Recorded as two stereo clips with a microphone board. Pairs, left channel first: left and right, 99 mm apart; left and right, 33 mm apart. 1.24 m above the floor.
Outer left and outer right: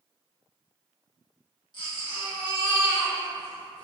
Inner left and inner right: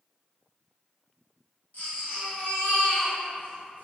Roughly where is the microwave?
No microwave in this recording.